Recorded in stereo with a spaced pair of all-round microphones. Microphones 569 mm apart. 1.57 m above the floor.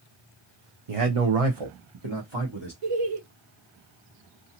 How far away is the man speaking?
About 0.9 m.